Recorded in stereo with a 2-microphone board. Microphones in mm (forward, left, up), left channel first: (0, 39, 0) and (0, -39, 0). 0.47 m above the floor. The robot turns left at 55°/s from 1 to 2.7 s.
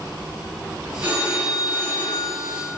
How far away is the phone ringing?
About 4 m.